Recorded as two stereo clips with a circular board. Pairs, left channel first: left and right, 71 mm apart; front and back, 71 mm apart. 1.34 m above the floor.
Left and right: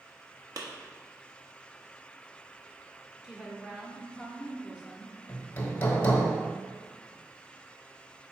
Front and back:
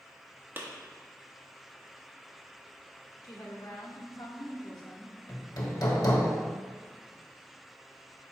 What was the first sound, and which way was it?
A clap, 120° right.